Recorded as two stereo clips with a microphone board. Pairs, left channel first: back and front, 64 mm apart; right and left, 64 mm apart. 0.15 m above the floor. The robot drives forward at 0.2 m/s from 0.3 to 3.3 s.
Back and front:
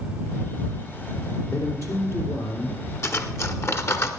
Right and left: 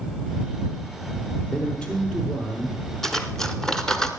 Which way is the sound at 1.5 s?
160° right.